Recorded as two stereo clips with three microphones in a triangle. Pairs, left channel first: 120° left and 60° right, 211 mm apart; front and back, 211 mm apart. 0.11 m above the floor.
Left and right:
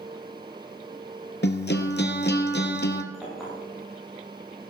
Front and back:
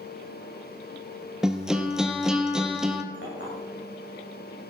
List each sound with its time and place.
1.4 s a guitar: 95° left, 1.2 m
3.1 s a clink: 30° left, 7.5 m